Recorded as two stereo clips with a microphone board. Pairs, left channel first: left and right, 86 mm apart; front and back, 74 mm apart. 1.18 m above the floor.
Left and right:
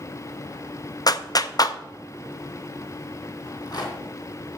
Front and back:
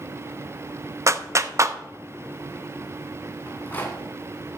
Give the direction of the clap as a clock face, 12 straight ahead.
8 o'clock.